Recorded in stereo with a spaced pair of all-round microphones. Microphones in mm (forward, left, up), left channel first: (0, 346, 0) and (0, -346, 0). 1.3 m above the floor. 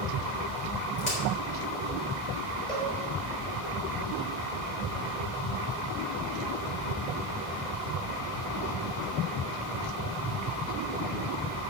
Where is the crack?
80° left, 4.5 m.